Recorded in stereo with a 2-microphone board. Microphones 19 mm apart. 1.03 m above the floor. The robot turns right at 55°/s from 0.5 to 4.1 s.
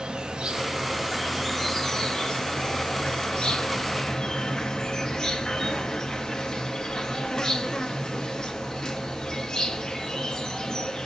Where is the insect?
45° right, 0.9 m; by 11.1 s 150° left, 0.9 m.